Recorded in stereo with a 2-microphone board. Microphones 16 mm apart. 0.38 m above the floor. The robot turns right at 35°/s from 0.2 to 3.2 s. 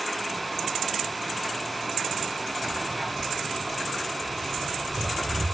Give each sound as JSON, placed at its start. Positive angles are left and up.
{"t": 2.6, "sound": "footsteps", "side_deg": -35, "distance_m": 6.0}